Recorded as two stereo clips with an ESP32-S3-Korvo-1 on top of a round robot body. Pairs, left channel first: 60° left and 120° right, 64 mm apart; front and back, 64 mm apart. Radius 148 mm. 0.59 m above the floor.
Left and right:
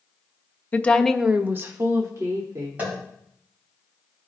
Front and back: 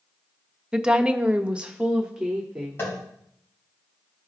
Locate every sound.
0.7 s a woman speaking: 105° left, 1.1 m; by 2.9 s 100° right, 2.5 m
2.8 s tapping: 55° right, 5.5 m